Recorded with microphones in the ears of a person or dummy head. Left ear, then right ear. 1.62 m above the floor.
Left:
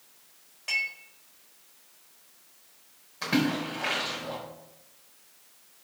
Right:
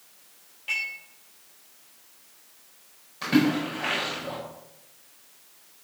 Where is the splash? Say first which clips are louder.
Right 4 dB; 10° left (ahead or behind), 4 m.